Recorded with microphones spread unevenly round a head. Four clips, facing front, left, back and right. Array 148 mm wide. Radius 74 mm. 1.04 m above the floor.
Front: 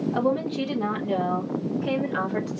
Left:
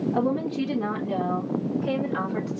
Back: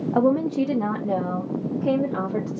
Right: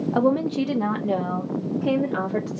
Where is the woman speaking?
140° right, 1.0 m; by 2.6 s 135° right, 3 m.